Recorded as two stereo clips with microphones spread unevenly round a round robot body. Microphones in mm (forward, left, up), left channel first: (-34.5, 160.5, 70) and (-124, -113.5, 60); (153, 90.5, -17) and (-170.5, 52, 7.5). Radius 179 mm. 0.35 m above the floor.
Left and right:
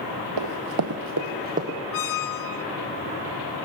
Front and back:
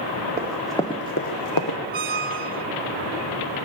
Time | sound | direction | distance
0.4 | running footsteps | 100° right | 1.0 m
1.9 | a squeak | 120° left | 0.7 m